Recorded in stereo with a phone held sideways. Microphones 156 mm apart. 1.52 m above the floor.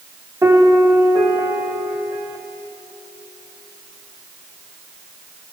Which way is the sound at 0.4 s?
25° right (ahead or behind).